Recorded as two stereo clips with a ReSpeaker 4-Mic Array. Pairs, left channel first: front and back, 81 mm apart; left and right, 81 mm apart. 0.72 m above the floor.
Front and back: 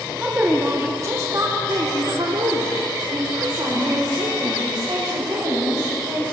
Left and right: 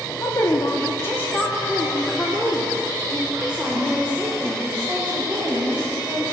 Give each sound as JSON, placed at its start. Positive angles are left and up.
{"t": 0.2, "sound": "a woman speaking", "azimuth_deg": 110, "distance_m": 1.2}